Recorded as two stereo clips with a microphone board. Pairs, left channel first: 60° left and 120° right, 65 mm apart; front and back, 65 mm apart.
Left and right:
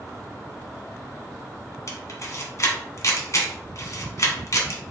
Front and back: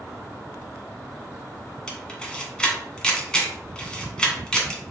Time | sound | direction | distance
1.9 | a camera shutter | 75° left | 1.2 m